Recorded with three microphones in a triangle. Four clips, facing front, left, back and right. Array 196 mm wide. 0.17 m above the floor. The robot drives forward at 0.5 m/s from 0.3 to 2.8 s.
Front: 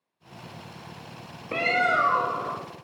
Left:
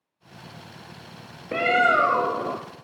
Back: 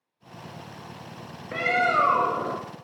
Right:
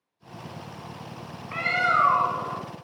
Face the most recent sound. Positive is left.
turn(degrees=130)